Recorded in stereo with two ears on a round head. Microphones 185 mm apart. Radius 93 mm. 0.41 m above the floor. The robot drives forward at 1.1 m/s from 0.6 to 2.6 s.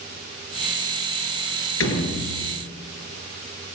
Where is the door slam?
75° left (ahead or behind), 5 m; by 2.5 s 70° left (ahead or behind), 5 m.